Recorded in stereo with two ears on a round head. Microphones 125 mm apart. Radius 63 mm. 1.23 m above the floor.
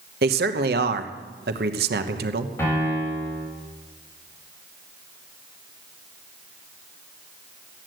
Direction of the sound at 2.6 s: 20° left (ahead or behind).